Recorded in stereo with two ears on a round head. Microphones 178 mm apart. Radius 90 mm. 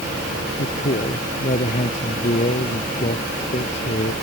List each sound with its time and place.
0.6 s a man speaking: 35° left (ahead or behind)